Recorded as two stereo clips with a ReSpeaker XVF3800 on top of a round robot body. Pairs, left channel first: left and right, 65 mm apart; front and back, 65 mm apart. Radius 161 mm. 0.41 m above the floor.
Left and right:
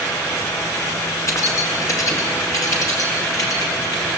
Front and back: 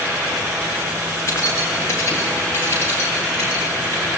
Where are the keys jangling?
50° left, 5 m; by 4.2 s 55° left, 9 m.